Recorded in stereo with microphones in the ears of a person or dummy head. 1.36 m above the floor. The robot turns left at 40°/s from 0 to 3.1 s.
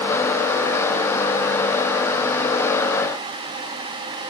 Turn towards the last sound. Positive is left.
No sound to turn to.